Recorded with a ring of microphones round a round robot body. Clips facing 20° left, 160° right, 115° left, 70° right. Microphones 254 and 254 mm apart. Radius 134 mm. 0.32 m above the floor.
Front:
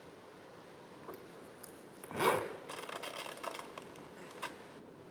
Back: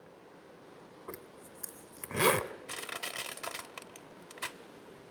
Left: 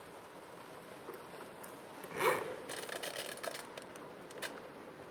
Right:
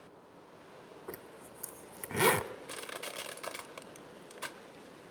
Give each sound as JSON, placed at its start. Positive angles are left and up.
{"t": 1.1, "sound": "a zipper", "azimuth_deg": -100, "distance_m": 1.0}
{"t": 2.7, "sound": "crushing", "azimuth_deg": -140, "distance_m": 1.0}